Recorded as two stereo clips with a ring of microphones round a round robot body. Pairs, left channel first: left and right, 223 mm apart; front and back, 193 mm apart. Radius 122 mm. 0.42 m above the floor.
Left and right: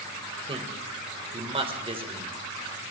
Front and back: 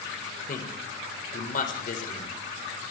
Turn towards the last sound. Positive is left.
turn(degrees=-30)